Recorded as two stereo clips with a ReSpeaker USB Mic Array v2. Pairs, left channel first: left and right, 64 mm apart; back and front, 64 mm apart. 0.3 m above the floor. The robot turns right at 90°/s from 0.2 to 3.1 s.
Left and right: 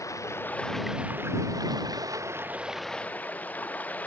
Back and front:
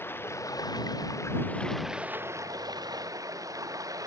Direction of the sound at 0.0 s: 125° left.